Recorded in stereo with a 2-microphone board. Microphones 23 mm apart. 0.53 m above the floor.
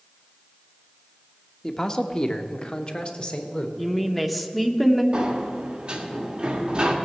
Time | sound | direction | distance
1.6 | a man speaking | 20° left (ahead or behind) | 0.8 m
3.8 | a woman speaking | 5° left (ahead or behind) | 1.0 m
5.1 | a sliding door | 35° right (ahead or behind) | 1.4 m